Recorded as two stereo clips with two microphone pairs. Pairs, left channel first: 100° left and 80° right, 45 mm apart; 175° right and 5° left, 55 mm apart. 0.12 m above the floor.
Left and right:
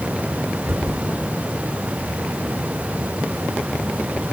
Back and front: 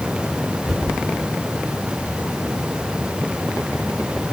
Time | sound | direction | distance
0.6 | a cupboard door | 100° right | 5 m